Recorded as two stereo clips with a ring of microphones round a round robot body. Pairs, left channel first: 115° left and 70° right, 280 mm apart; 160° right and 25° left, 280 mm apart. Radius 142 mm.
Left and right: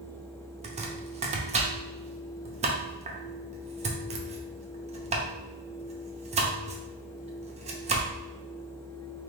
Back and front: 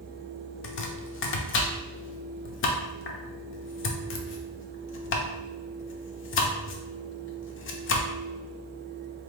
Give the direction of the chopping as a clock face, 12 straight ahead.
4 o'clock.